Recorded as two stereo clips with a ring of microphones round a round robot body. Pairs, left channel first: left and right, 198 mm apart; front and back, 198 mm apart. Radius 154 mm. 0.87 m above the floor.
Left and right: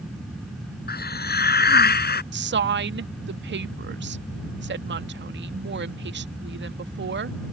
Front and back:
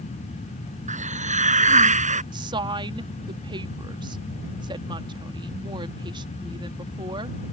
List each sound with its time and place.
0.9 s a hiss: 130° left
2.3 s a woman speaking: 110° right